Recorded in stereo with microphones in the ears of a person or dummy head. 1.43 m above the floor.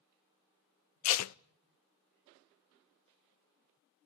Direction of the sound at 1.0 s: 75° left (ahead or behind).